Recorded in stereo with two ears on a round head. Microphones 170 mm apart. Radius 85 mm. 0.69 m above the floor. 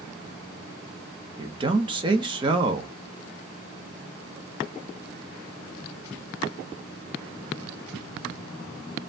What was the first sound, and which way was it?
A man speaking, 25° right (ahead or behind).